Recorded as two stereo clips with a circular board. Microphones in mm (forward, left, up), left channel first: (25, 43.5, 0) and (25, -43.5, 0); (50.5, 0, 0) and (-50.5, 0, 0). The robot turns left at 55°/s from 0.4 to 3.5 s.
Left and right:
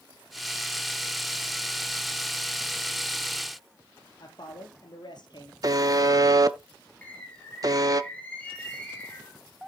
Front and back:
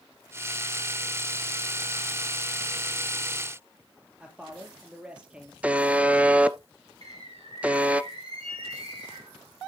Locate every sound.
4.2 s a man speaking: 100° left, 3 m
5.6 s a buzzer: 110° right, 0.5 m
7.0 s a bird: 160° left, 3 m